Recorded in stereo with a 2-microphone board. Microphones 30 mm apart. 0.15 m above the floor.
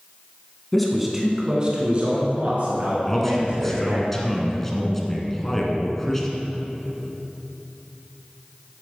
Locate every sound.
0.7 s a man speaking: 5° left (ahead or behind), 1.7 m; by 4.0 s 70° right (ahead or behind), 4 m
3.1 s a man speaking: 15° left (ahead or behind), 1.5 m